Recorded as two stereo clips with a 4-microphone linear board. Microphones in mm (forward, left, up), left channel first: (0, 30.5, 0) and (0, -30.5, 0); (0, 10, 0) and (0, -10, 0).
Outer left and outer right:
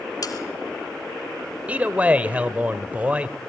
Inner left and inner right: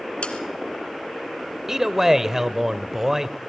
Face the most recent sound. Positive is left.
turn(degrees=-25)  # may be behind; listen again after turning